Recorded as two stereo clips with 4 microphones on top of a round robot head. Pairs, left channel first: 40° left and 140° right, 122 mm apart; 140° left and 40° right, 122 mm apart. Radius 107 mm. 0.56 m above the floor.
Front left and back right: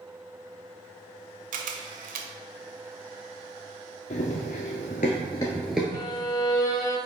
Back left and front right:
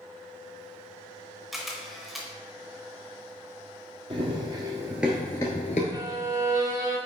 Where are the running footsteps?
10° left, 1.0 m; by 5.8 s 140° left, 0.6 m.